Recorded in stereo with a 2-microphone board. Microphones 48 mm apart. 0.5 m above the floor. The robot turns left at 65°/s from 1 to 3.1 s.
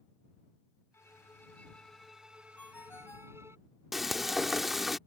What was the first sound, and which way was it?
A violin, 70° left.